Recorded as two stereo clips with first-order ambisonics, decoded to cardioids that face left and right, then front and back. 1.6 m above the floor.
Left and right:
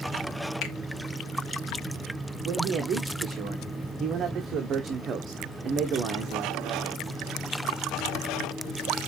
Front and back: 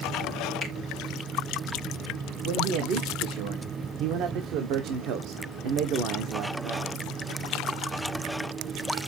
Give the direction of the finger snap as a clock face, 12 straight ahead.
8 o'clock.